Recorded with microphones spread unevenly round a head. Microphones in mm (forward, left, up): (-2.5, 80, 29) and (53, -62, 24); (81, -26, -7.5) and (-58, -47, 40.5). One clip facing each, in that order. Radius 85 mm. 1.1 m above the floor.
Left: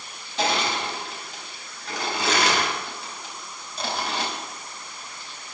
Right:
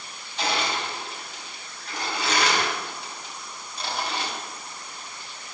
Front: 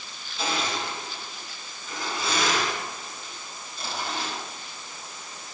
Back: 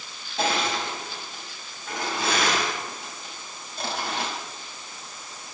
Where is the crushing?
145° left, 5.5 m.